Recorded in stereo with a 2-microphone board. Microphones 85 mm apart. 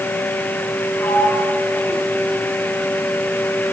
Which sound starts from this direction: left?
A sliding door, at 1.0 s.